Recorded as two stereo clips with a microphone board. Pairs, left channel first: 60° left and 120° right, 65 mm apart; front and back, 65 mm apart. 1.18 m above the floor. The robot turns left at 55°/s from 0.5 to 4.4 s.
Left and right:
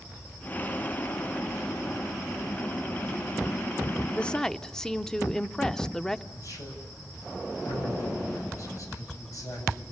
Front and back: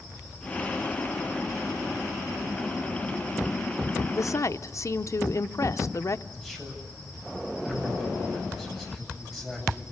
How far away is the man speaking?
About 8 m.